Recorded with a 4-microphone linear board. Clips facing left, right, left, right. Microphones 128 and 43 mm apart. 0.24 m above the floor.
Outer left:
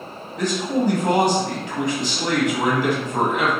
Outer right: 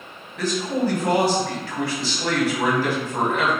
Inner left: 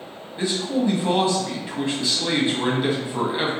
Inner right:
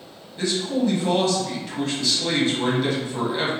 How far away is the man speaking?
About 1.2 m.